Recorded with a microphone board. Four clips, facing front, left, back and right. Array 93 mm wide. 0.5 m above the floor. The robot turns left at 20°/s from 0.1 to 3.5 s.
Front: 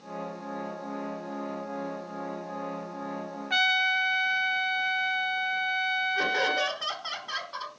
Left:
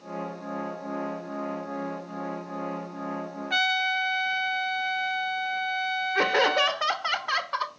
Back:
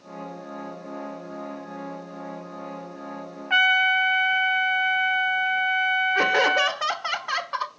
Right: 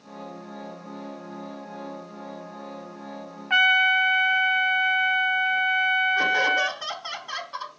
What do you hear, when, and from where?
3.5 s a trumpet: 130° right, 0.7 m
6.2 s laughter: 135° left, 1.3 m